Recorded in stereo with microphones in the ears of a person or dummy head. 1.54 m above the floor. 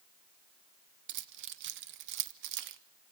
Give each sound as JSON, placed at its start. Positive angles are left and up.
{"t": 1.1, "sound": "keys jangling", "side_deg": -60, "distance_m": 0.7}